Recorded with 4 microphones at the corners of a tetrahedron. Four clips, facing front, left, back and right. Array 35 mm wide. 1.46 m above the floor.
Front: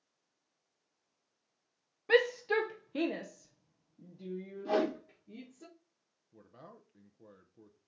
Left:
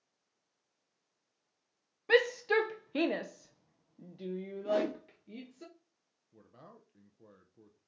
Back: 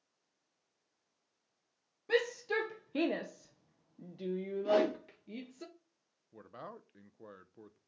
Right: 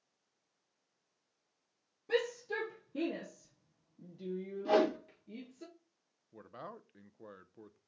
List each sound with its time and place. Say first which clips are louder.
2.1 s a shout: left 8 dB, front 5 dB; 55° left, 0.7 m; by 5.7 s 170° left, 1.4 m
4.7 s a whoosh: right 3 dB, back 1 dB; 85° right, 1.5 m
6.3 s a man speaking: right 8 dB, back 6 dB; 135° right, 0.6 m